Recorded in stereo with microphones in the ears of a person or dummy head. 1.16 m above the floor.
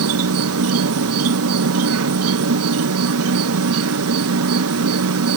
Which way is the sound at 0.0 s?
70° right (ahead or behind).